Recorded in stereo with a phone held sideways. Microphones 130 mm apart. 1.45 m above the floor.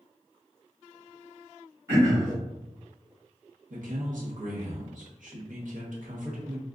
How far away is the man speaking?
About 1.2 m.